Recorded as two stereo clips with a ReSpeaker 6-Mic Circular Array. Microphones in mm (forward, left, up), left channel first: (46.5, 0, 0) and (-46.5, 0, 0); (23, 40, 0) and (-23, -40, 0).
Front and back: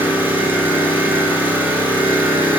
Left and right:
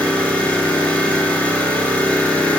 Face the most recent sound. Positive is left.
turn(degrees=125)